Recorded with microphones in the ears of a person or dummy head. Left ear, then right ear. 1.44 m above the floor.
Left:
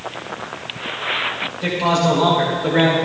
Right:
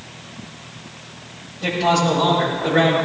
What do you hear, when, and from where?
1.6 s a man speaking: 30° left (ahead or behind), 5.5 m; by 3.0 s 15° left (ahead or behind), 5 m